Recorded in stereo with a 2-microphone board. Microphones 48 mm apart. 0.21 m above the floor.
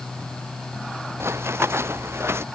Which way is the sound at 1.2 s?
70° right (ahead or behind).